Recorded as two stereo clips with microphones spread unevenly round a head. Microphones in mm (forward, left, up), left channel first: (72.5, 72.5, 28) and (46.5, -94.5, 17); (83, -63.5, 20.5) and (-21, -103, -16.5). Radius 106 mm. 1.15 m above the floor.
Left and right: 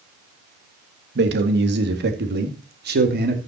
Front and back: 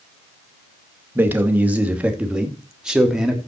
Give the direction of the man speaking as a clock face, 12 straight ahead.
3 o'clock.